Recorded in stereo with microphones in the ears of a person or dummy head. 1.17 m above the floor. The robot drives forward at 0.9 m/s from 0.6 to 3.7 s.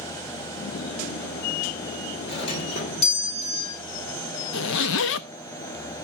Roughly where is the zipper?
Left.